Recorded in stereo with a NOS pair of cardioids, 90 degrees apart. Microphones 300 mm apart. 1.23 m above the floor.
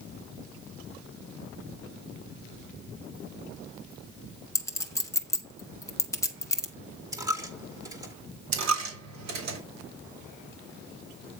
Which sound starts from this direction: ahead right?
A dropped coin, at 8.5 s.